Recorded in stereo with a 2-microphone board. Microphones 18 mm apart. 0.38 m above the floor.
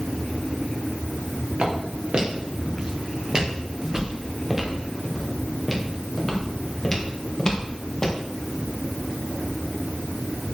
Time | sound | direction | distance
1.6 | footsteps | 55° right (ahead or behind) | 4.5 m